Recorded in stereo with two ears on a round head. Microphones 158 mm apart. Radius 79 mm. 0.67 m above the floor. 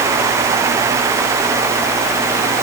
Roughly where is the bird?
I don't hear a bird.